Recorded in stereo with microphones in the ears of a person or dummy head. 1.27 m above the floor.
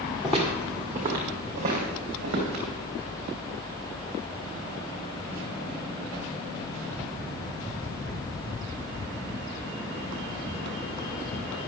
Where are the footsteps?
10° left (ahead or behind), 1.3 m; by 2.6 s 40° right (ahead or behind), 3.5 m.